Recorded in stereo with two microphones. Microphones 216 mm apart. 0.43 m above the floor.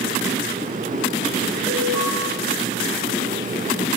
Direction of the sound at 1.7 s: Centre (ahead or behind).